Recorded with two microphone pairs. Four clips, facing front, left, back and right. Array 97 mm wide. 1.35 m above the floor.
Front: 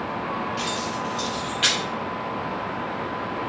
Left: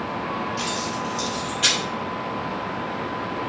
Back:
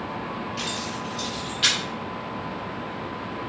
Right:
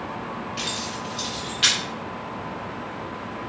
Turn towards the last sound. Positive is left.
turn(degrees=-15)